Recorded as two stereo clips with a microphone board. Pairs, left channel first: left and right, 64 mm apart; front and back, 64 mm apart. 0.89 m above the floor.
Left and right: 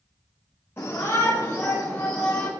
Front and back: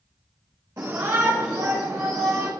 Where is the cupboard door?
No cupboard door in this recording.